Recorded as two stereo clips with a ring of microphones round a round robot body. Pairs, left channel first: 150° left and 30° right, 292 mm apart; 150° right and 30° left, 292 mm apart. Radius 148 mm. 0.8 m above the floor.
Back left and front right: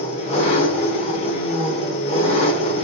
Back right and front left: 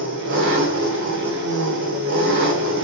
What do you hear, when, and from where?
0.0 s an engine running: 80° left, 0.8 m